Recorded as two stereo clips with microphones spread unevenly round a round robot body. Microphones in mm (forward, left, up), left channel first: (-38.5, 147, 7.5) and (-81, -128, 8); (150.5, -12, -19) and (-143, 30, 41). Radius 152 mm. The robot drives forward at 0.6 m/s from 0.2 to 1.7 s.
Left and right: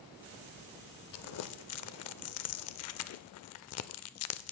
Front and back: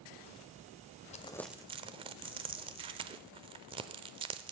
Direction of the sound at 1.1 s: 50° left.